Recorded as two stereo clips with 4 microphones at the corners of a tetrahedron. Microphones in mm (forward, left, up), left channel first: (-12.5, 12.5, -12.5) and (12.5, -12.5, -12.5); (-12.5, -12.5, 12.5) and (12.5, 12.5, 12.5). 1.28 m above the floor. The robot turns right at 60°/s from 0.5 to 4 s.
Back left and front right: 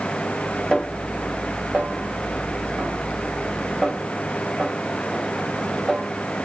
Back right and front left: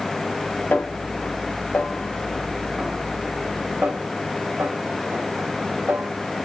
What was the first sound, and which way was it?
A snare drum, 160° right.